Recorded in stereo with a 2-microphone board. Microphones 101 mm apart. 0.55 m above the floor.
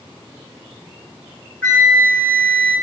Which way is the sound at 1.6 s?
20° left (ahead or behind).